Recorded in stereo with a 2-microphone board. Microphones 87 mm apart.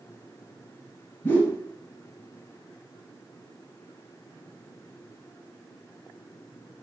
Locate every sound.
1.2 s a whoosh: 20° left (ahead or behind), 2 m